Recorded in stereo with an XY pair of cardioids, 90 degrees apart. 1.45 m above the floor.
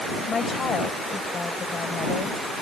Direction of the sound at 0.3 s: 45° left.